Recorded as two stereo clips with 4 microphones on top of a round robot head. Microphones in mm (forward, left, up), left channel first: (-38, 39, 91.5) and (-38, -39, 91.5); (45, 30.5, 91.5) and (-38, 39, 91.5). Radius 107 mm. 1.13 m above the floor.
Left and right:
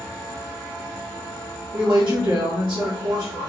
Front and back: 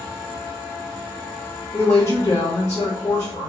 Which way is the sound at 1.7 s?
55° right.